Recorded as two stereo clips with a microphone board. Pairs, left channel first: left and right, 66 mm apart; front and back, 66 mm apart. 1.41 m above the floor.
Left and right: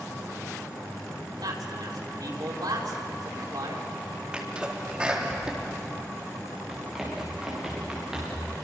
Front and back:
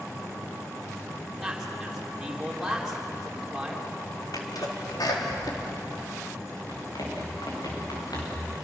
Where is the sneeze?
15° right, 4 m.